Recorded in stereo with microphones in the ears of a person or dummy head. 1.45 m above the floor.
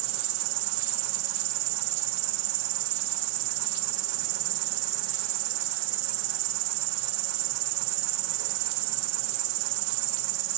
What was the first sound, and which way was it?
An insect, 75° right (ahead or behind).